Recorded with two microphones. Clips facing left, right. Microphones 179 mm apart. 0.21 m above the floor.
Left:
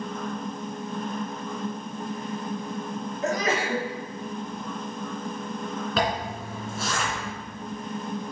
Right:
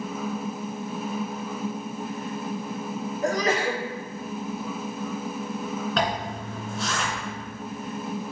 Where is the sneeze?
35° right (ahead or behind), 3 m.